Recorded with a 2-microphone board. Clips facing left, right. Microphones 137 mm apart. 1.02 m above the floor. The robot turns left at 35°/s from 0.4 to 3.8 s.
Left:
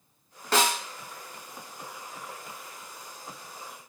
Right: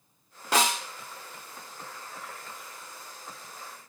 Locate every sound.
0.5 s a snare drum: 10° right (ahead or behind), 0.9 m; by 0.8 s 20° right (ahead or behind), 0.9 m